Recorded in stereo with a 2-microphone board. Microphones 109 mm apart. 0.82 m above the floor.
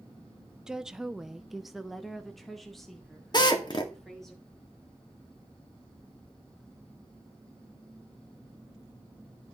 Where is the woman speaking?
5° right (ahead or behind), 0.7 m; by 4.3 s 5° left (ahead or behind), 2 m.